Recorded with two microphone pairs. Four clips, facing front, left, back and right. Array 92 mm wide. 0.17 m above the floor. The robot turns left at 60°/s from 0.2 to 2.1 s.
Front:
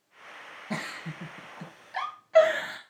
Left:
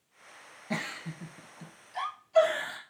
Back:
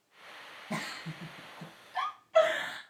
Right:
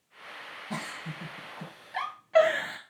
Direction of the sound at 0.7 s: 35° left.